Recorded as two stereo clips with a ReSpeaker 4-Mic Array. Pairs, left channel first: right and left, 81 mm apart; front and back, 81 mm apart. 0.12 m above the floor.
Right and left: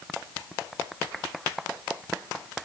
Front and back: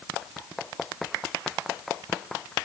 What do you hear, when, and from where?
Only background noise.